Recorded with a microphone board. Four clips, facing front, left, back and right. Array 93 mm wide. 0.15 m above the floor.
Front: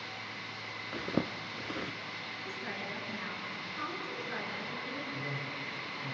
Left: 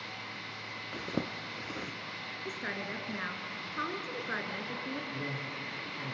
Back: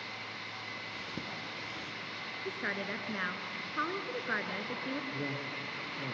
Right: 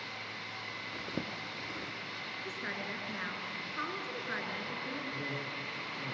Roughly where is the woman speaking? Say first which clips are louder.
Left 3 dB, back 5 dB; behind left.